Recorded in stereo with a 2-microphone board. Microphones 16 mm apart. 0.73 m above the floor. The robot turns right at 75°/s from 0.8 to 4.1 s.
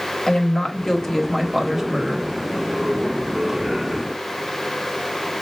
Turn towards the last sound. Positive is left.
turn(degrees=15)